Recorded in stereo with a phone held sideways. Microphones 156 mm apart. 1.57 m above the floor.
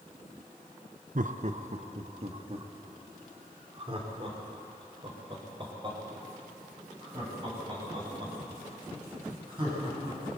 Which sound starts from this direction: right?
Laughter, at 1.1 s.